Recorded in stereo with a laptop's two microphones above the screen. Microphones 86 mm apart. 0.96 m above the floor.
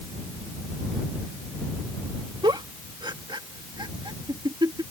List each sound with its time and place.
2.4 s a giggle: 65° right (ahead or behind)